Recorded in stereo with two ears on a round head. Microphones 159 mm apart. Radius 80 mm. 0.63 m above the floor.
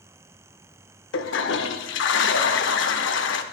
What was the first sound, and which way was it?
A toilet flushing, 70° left (ahead or behind).